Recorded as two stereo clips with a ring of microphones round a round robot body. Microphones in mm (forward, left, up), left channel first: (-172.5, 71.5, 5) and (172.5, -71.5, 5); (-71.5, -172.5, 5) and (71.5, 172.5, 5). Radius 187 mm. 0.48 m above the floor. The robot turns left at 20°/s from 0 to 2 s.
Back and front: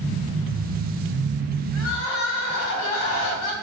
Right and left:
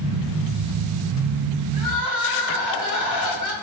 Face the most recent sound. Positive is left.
turn(degrees=-155)